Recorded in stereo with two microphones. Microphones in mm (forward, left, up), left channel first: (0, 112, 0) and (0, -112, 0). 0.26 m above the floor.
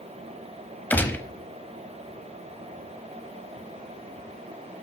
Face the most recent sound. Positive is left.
turn(degrees=10)  # may be behind; listen again after turning